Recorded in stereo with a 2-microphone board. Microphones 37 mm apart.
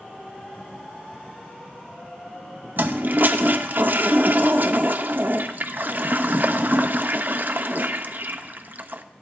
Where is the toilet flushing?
55° right (ahead or behind), 0.5 m.